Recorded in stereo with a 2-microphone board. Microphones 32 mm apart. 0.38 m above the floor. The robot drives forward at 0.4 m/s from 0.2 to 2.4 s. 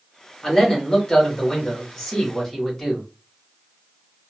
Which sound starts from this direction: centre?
A man speaking, at 0.4 s.